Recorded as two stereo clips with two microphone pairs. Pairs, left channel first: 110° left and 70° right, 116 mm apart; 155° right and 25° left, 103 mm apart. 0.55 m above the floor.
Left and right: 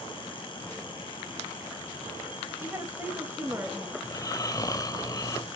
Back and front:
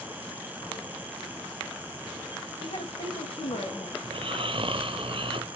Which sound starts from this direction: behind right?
A woman speaking, at 2.6 s.